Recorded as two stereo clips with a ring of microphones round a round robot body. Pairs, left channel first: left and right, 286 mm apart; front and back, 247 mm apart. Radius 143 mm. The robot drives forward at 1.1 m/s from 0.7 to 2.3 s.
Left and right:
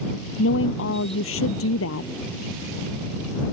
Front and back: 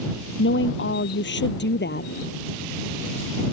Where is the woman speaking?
40° left; by 2.1 s 45° left.